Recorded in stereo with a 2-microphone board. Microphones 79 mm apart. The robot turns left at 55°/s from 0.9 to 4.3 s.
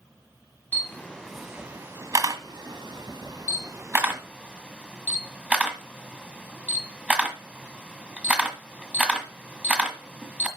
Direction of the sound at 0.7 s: 25° left (ahead or behind).